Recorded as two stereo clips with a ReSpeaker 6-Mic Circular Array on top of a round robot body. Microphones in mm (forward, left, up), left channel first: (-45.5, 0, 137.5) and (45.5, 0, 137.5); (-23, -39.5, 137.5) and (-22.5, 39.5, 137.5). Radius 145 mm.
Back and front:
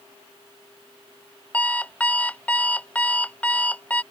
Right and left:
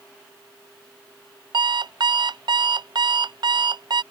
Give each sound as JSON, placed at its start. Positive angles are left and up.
{"t": 1.5, "sound": "an alarm clock", "azimuth_deg": 105}